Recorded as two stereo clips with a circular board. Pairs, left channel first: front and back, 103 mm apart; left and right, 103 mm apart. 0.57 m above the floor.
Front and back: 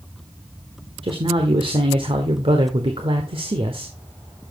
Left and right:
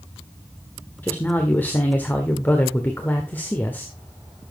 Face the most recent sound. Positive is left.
turn(degrees=160)